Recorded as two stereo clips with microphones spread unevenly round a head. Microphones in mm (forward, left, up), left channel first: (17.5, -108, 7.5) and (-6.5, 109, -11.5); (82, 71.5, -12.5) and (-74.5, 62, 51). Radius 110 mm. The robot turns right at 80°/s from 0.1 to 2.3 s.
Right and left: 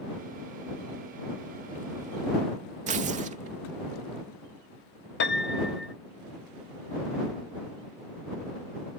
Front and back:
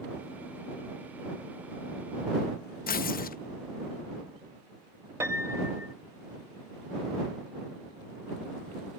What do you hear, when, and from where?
2.9 s tearing paper: 35° left
5.2 s a piano: 115° right